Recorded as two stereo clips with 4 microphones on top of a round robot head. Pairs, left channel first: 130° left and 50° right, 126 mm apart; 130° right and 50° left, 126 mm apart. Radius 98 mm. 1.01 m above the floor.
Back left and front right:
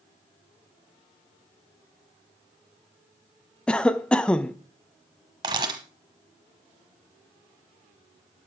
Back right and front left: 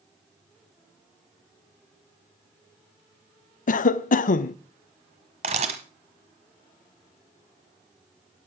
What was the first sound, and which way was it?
A cough, 145° right.